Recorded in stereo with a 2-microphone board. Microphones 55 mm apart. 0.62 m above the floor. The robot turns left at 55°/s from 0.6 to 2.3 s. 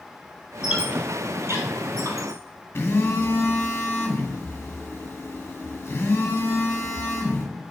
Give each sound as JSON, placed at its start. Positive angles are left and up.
{"t": 0.6, "sound": "a squeak", "side_deg": -10, "distance_m": 1.8}
{"t": 2.8, "sound": "a phone buzzing", "side_deg": 45, "distance_m": 2.0}